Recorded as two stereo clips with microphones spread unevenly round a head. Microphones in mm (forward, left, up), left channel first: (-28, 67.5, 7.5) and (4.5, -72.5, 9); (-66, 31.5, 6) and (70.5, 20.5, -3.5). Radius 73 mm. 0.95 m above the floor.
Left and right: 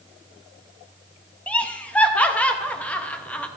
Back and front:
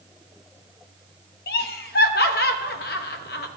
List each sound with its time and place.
1.5 s laughter: 175° right, 1.0 m